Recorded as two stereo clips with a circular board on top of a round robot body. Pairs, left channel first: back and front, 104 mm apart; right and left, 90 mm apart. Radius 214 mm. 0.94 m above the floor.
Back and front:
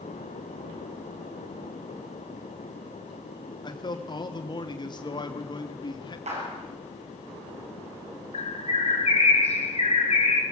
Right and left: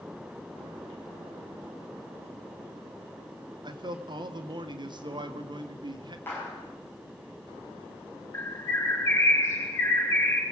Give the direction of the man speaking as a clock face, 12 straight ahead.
8 o'clock.